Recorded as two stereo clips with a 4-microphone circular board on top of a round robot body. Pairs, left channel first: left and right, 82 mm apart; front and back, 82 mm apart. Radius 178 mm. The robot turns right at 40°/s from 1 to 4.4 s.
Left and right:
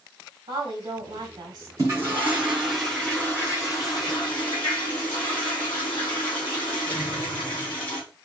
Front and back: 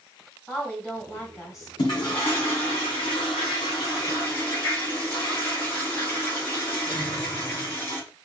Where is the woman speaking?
75° right, 1.9 m; by 1.7 s 50° right, 1.9 m.